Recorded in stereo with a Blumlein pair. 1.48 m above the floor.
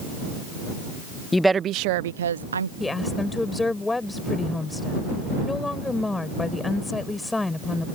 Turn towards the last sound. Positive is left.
turn(degrees=10)